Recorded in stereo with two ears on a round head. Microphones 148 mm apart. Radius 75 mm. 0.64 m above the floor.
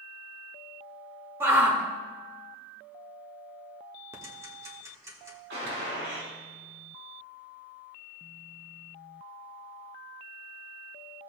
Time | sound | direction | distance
1.4 | a shout | 15° right (ahead or behind) | 1.7 m
4.1 | ticking | 15° right (ahead or behind) | 1.3 m
5.5 | a gunshot | 70° right (ahead or behind) | 3.5 m